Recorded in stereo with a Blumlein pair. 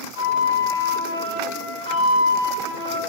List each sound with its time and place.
0.1 s a flute: 65° left, 1.1 m